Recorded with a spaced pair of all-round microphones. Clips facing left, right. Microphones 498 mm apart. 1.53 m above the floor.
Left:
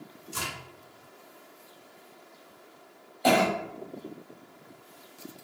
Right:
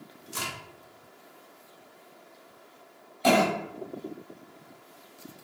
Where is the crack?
30° left (ahead or behind), 1.0 m.